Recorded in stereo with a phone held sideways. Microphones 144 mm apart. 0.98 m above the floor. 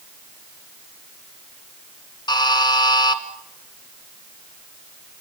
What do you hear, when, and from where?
2.3 s a buzzer: 30° left (ahead or behind), 2 m